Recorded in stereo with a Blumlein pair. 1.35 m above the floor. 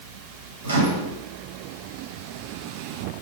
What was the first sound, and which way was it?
A microwave, 70° right.